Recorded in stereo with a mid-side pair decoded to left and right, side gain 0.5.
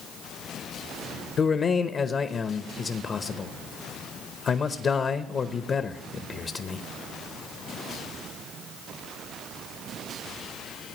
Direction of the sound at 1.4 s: 45° left.